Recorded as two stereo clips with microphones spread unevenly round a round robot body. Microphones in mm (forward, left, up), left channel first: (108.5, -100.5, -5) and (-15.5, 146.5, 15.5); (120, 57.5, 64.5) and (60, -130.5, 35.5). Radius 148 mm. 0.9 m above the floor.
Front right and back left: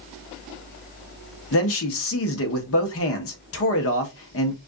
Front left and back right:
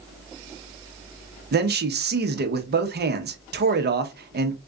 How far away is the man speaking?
About 1.0 m.